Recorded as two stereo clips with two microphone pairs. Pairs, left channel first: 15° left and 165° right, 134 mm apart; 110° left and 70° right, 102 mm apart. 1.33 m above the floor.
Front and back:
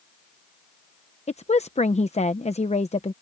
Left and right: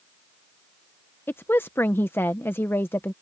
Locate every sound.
1.3 s a woman speaking: 45° left